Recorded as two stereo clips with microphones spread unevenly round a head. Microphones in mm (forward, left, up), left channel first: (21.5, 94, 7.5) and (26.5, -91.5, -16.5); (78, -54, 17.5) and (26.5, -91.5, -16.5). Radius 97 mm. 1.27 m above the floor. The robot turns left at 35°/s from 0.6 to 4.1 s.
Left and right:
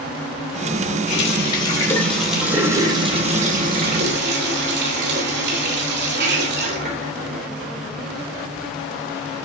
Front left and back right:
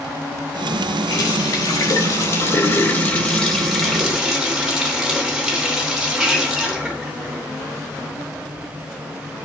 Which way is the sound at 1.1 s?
45° left.